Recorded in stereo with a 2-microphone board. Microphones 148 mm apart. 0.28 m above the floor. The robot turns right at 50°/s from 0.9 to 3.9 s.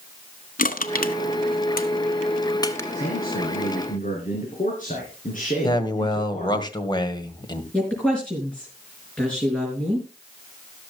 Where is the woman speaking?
5° left (ahead or behind), 4.5 m.